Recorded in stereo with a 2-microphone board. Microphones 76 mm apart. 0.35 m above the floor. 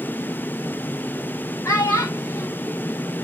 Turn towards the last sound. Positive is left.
turn(degrees=45)  # may be behind; listen again after turning